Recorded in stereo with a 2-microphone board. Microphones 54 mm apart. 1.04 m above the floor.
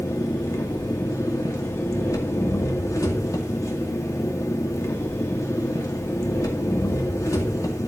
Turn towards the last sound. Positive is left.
turn(degrees=80)